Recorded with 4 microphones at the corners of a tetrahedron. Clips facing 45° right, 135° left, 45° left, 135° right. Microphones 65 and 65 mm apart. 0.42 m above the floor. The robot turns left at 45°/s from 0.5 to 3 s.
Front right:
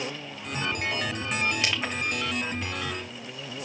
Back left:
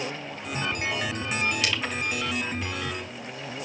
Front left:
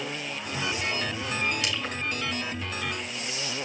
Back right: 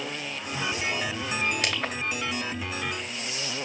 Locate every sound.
1.6 s crushing: 105° right, 2.5 m; by 2.0 s 125° right, 2.5 m